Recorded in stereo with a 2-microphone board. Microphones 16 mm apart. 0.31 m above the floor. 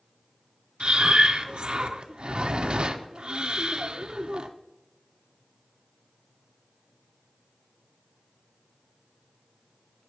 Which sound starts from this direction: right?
Breathing, at 0.8 s.